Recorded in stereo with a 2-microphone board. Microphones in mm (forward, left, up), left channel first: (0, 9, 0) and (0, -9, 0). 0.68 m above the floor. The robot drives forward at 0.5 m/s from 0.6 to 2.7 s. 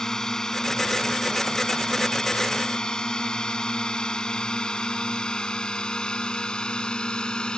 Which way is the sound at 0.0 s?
30° left (ahead or behind).